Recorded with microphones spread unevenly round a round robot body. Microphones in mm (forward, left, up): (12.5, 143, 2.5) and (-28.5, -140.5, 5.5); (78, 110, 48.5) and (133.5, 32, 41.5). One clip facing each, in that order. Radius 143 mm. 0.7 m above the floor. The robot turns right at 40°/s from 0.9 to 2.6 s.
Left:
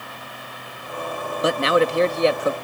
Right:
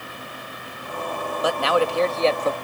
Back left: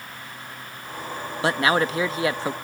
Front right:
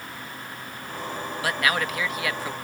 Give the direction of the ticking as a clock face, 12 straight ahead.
I don't hear ticking.